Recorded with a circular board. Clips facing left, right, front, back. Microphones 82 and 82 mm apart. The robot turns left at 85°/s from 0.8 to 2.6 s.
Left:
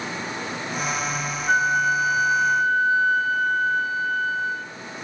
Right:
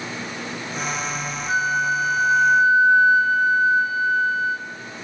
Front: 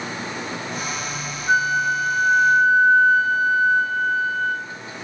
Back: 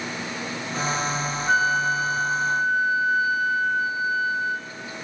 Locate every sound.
1.5 s a flute: 85° left, 0.6 m; by 4.7 s 10° right, 0.6 m